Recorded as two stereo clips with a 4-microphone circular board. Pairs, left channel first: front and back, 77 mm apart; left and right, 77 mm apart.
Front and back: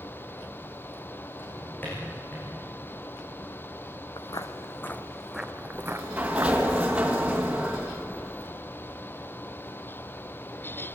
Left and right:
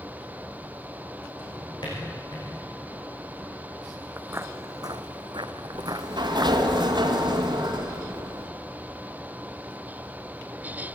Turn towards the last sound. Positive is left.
turn(degrees=-105)